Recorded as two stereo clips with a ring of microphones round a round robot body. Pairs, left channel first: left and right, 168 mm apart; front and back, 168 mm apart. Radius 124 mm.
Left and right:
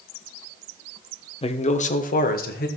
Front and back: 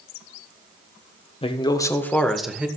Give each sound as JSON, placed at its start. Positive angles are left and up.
{"t": 1.4, "sound": "a man speaking", "azimuth_deg": 45, "distance_m": 1.2}